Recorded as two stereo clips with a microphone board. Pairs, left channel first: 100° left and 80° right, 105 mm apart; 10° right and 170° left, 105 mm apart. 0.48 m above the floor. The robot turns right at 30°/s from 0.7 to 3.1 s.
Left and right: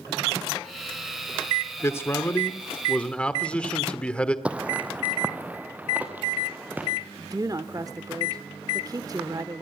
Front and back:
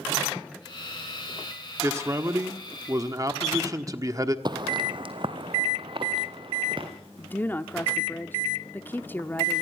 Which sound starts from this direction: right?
A woman speaking, at 7.2 s.